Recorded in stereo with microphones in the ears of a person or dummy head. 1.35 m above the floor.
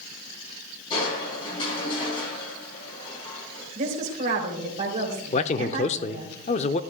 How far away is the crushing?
About 6 m.